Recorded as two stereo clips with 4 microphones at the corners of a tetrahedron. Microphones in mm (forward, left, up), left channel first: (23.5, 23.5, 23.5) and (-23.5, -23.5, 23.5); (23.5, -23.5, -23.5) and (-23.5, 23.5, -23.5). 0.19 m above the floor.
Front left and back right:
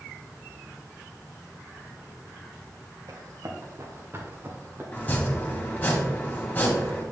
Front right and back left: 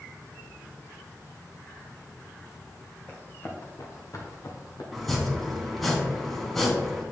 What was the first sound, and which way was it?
Running footsteps, 105° right.